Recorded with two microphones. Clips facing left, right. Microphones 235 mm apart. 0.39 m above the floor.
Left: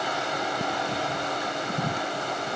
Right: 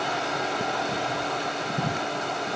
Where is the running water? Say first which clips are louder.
Right 1 dB; 25° right (ahead or behind), 9 m.